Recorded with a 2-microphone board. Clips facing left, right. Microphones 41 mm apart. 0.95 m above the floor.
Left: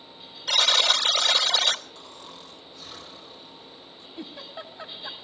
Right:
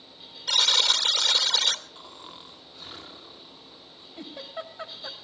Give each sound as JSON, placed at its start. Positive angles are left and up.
{"t": 0.5, "sound": "a buzzer", "side_deg": 0, "distance_m": 3.0}
{"t": 1.9, "sound": "snoring", "side_deg": -20, "distance_m": 1.4}
{"t": 4.2, "sound": "a giggle", "side_deg": -40, "distance_m": 6.5}